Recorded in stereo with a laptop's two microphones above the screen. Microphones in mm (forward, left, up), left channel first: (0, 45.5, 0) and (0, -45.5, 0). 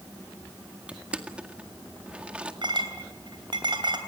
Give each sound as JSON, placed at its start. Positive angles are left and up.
{"t": 0.9, "sound": "crushing", "side_deg": -15, "distance_m": 2.0}
{"t": 2.6, "sound": "a clink", "side_deg": -60, "distance_m": 3.0}